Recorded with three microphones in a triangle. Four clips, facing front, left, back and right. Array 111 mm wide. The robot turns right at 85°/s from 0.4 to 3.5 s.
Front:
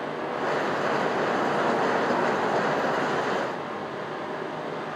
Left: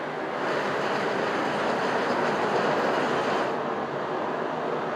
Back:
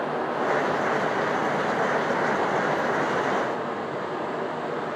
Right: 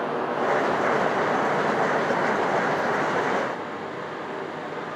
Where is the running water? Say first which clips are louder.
Right 4 dB, back 3 dB; 135° right, 7.5 m; by 5.0 s 130° left, 7.5 m.